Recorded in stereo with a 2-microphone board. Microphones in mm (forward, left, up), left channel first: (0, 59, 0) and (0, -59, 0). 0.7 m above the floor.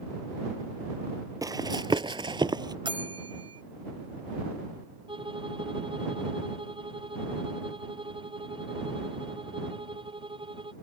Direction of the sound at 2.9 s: 45° right (ahead or behind).